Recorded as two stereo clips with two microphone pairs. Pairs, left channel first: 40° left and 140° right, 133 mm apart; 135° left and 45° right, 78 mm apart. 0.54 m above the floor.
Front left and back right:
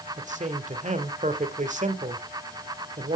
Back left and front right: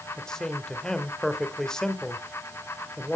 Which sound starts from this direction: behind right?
A man speaking, at 0.2 s.